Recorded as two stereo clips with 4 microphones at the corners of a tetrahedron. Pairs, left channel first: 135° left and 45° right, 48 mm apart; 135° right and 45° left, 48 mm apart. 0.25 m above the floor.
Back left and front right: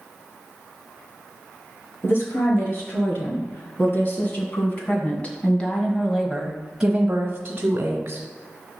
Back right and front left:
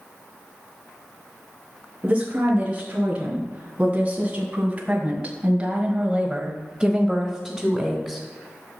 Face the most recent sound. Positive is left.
turn(degrees=-50)